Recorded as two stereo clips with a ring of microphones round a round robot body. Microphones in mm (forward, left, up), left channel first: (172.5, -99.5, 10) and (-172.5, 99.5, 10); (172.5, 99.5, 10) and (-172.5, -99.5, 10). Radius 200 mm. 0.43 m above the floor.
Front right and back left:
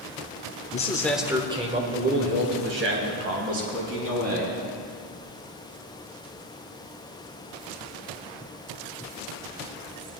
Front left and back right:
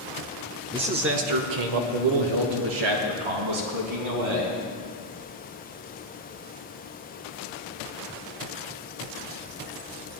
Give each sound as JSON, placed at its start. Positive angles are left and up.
{"t": 0.7, "sound": "a man speaking", "azimuth_deg": -75, "distance_m": 1.0}